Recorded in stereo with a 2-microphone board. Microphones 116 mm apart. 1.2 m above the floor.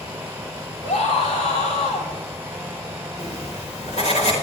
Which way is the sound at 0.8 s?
85° left.